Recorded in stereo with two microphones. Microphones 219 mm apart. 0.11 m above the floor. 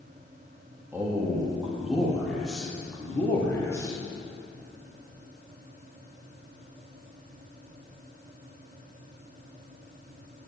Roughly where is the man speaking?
Centre.